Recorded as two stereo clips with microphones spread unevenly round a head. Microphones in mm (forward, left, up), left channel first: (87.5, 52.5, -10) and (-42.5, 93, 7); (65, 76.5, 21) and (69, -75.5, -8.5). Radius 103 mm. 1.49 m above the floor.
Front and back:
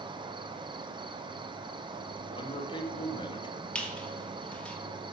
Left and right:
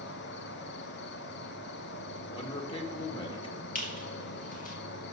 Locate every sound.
0.0 s an insect: 105° left, 1.0 m
2.3 s a man speaking: 35° left, 2.5 m
3.8 s a squeak: 65° left, 2 m